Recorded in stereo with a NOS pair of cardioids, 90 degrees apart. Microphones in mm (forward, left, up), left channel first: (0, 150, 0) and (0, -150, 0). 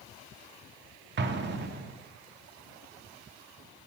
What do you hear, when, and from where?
1.2 s an explosion: 40° right, 0.8 m